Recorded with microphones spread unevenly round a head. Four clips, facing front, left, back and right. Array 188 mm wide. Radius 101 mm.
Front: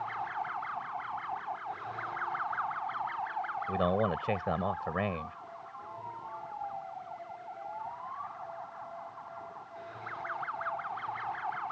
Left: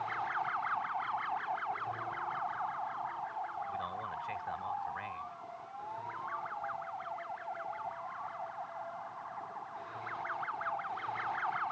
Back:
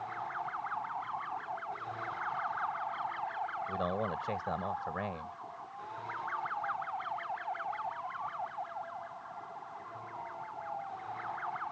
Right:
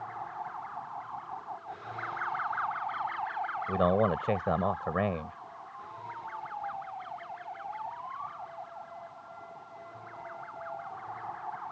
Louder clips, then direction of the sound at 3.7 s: Right 13 dB, front 8 dB; 70° right.